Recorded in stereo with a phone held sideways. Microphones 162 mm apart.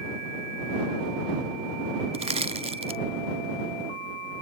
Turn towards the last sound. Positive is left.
turn(degrees=-40)  # may be behind; listen again after turning